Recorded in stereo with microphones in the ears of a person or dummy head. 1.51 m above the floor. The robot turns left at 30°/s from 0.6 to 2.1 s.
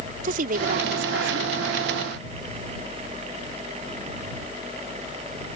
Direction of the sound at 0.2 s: 45° right (ahead or behind).